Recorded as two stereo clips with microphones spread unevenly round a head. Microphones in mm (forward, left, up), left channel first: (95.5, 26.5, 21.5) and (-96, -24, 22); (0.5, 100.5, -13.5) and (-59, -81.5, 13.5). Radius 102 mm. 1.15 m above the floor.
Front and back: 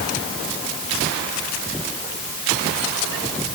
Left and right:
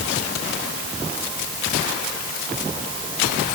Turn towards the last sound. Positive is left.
No sound to turn to.